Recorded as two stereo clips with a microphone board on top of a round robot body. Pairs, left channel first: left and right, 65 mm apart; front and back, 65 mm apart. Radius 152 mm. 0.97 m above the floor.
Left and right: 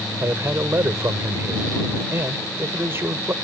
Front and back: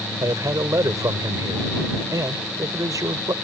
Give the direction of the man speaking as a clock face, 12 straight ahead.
5 o'clock.